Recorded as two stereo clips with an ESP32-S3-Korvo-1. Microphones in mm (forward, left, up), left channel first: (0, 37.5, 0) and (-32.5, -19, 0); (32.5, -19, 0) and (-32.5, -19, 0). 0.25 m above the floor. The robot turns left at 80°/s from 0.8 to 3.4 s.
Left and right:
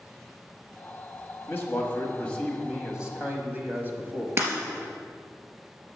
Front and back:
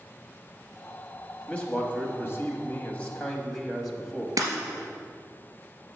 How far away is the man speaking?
About 1.2 m.